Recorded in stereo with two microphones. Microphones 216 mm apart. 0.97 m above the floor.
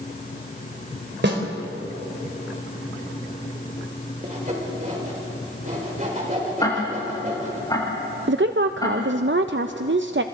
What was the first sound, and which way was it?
A snare drum, 55° right (ahead or behind).